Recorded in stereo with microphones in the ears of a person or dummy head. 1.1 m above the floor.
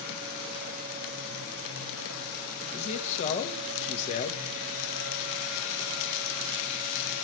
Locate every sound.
2.7 s a man speaking: 40° left (ahead or behind), 1.2 m